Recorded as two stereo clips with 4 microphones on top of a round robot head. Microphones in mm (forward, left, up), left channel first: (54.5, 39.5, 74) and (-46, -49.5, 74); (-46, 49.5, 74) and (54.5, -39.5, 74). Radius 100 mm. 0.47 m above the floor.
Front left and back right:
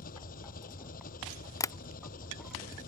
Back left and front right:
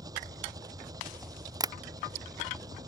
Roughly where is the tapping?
Ahead.